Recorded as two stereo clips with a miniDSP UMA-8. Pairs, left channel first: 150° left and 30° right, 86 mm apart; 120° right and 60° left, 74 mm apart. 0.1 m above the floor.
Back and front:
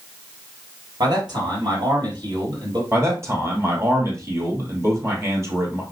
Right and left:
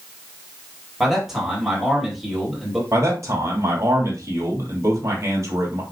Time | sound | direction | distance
1.0 | a man speaking | 20° right | 3 m
2.9 | a man speaking | 20° left | 2.5 m